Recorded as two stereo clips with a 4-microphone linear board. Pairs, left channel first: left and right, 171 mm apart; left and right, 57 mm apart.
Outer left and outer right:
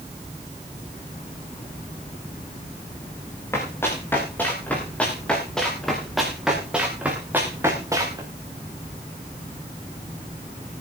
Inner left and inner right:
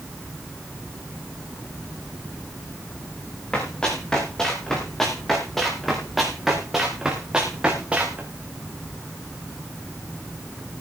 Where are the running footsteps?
15° left (ahead or behind), 8 m; by 8.2 s 20° right (ahead or behind), 5 m.